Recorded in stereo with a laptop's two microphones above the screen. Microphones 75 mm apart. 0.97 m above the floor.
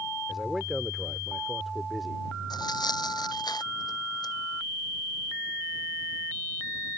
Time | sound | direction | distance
0.3 | a man speaking | centre (ahead or behind) | ?
2.5 | tearing paper | 65° left (ahead or behind) | ?